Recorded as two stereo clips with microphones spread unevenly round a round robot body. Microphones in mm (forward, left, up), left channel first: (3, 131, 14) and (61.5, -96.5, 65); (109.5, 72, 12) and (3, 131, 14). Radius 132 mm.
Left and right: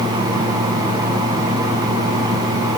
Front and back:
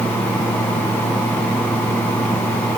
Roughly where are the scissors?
I don't hear scissors.